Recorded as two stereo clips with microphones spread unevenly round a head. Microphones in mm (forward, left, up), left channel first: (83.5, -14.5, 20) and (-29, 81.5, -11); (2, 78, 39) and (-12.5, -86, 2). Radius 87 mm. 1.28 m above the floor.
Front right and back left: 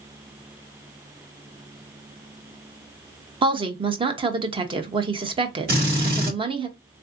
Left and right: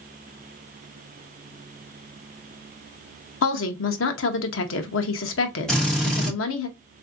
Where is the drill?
170° left, 2 m.